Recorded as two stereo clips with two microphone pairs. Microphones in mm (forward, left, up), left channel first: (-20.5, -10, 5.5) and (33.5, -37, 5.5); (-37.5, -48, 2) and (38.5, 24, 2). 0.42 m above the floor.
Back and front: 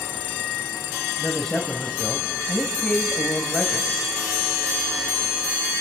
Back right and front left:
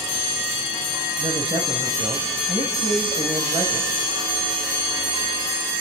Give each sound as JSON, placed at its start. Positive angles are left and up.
{"t": 1.2, "sound": "a man speaking", "azimuth_deg": 70, "distance_m": 2.0}